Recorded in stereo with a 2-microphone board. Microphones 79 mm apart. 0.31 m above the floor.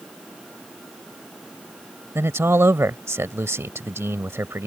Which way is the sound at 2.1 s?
35° right (ahead or behind).